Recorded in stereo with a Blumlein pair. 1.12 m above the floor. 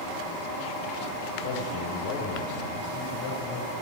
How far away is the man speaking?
About 4.5 m.